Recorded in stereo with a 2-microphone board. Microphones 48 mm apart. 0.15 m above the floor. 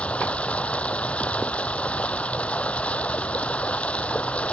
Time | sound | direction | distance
0.0 | running water | 25° left (ahead or behind) | ?